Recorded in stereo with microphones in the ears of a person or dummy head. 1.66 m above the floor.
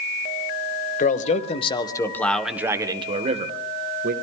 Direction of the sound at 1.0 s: 50° left (ahead or behind).